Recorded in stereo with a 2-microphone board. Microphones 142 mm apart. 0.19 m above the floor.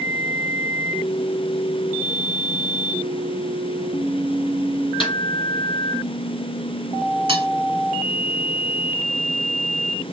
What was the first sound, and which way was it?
A snare drum, 40° left (ahead or behind).